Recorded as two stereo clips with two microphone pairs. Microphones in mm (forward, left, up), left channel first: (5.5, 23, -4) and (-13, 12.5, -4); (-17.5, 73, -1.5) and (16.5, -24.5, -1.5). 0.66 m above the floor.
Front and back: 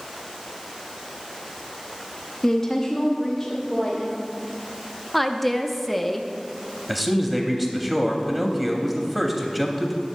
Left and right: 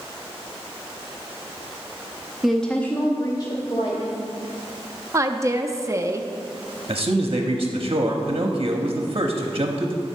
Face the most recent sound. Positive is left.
turn(degrees=-60)